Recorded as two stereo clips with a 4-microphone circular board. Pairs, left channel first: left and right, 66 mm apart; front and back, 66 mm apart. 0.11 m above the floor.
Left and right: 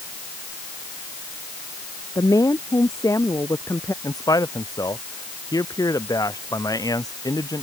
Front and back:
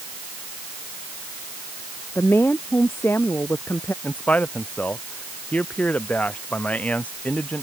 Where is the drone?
No drone in this recording.